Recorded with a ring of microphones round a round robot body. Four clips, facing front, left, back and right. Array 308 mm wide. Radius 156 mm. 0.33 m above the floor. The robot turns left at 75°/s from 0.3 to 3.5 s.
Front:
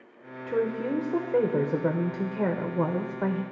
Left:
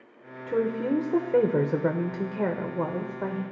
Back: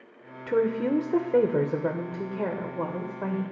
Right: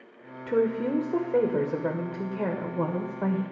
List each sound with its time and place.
0.5 s a woman speaking: 160° right, 0.9 m; by 3.4 s 20° right, 0.9 m